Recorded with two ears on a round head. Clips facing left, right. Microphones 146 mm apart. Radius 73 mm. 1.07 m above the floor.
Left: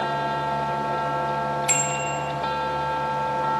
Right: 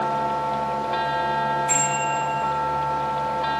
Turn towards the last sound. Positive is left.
turn(degrees=85)